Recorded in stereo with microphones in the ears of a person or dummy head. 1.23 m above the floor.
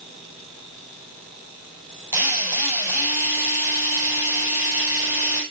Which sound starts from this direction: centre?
A drill, at 2.1 s.